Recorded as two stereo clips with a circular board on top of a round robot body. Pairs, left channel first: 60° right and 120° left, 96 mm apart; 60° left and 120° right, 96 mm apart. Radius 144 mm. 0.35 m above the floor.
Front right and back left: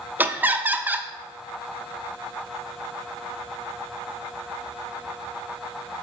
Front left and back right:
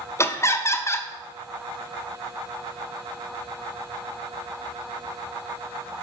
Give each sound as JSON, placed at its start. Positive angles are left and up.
{"t": 0.2, "sound": "laughter", "azimuth_deg": 70, "distance_m": 0.9}